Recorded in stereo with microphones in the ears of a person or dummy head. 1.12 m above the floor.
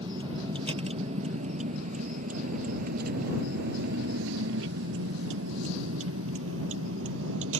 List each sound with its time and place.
0.0 s a vehicle: 30° right (ahead or behind); by 7.6 s 80° right